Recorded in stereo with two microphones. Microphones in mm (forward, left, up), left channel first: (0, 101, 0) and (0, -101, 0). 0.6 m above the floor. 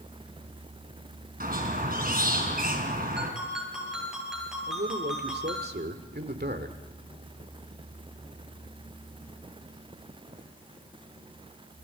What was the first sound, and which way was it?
A squeak, 45° right (ahead or behind).